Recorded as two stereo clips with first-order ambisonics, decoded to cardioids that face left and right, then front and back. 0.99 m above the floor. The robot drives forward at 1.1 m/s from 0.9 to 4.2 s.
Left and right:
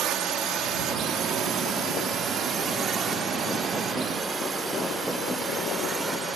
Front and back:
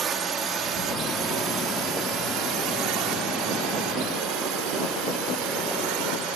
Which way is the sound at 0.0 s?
125° right.